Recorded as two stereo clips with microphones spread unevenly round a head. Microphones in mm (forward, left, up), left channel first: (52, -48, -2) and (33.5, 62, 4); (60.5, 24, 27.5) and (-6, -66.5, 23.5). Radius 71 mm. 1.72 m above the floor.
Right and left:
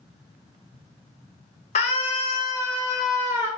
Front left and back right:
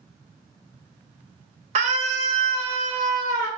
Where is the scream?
110° right, 1.1 m; by 3.5 s 155° left, 0.8 m.